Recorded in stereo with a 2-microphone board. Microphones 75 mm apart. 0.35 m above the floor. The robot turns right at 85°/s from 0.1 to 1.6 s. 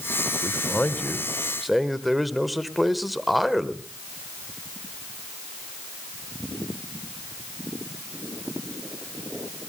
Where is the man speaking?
25° left (ahead or behind), 1.2 m; by 3.8 s centre (ahead or behind), 1.2 m.